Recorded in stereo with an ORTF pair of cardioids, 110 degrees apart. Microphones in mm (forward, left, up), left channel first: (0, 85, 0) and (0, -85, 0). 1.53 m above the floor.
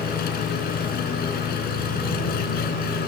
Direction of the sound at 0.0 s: 65° left.